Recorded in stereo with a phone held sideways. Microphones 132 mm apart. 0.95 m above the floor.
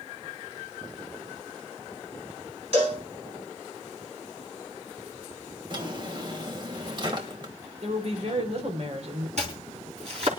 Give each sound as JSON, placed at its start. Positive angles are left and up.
{"t": 2.7, "sound": "a cowbell", "side_deg": -50, "distance_m": 3.0}
{"t": 5.7, "sound": "a drawer", "side_deg": -35, "distance_m": 1.9}
{"t": 7.8, "sound": "a woman speaking", "side_deg": -55, "distance_m": 3.5}
{"t": 9.4, "sound": "chopping", "side_deg": -60, "distance_m": 3.5}